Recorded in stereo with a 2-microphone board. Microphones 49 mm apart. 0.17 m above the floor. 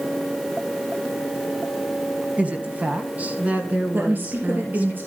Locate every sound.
2.4 s a woman speaking: 25° right (ahead or behind), 1.1 m; by 4.9 s 30° right (ahead or behind), 2 m
3.9 s a woman speaking: 40° right (ahead or behind), 3 m